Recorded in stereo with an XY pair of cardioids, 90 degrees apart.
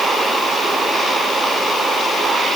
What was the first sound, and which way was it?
Only background noise.